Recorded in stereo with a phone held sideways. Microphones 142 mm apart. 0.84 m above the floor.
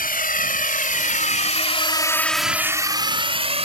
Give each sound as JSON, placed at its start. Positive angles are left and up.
{"t": 0.0, "sound": "a drone", "side_deg": 80}